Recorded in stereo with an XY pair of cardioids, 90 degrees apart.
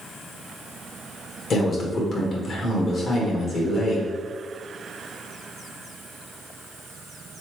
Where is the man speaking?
60° left, 1.6 m.